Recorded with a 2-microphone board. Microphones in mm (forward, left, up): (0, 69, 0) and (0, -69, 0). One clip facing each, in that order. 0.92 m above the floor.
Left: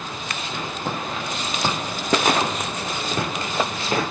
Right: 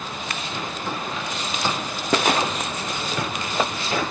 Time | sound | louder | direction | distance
0.8 | footsteps | left 3 dB | 40° left (ahead or behind) | 3.5 m